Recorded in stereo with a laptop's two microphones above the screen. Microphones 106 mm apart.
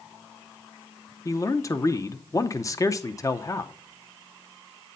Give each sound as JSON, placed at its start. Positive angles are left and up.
{"t": 1.2, "sound": "a man speaking", "side_deg": 30, "distance_m": 0.7}